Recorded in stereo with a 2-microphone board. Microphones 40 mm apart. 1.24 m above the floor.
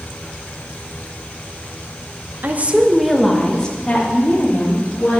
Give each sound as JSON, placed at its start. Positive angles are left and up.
{"t": 2.4, "sound": "a woman speaking", "side_deg": -50, "distance_m": 0.9}